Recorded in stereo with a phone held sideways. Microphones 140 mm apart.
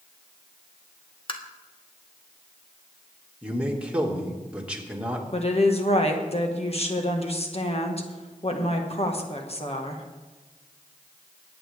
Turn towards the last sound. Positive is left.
turn(degrees=45)  # may be behind; listen again after turning